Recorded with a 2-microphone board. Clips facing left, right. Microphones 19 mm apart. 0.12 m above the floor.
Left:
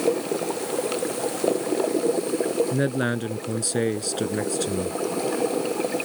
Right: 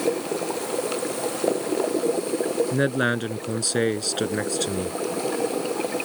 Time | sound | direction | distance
2.7 | a man speaking | 25° right (ahead or behind) | ?